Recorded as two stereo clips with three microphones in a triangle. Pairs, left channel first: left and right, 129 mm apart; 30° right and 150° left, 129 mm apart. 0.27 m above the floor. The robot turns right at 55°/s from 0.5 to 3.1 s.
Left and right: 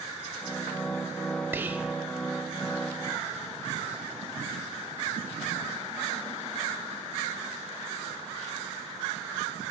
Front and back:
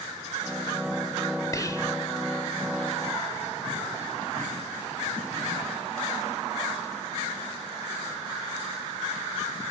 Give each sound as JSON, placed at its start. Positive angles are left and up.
{"t": 1.5, "sound": "whispering", "azimuth_deg": -40, "distance_m": 0.9}